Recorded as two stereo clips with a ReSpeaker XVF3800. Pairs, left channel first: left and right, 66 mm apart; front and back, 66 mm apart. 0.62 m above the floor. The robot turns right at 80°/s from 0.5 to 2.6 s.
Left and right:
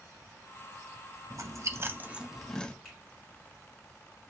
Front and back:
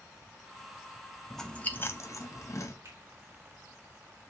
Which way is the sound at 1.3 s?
90° right.